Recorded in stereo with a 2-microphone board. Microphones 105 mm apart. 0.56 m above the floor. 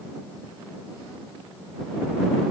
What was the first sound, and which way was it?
Only background noise.